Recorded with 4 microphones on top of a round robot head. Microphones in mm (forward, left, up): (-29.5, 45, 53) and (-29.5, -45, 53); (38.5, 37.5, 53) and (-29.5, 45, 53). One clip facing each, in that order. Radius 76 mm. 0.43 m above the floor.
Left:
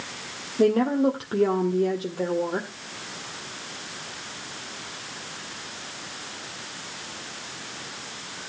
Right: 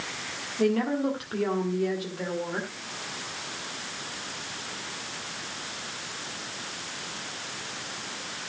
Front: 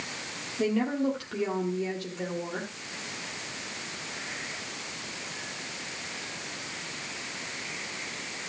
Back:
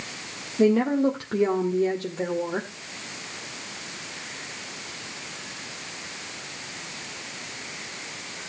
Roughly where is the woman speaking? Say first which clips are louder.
Left 5 dB, back 7 dB; behind left.